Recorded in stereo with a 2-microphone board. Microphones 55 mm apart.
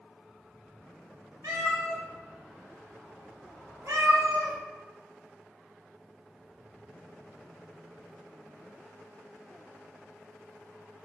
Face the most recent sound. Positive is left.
turn(degrees=-80)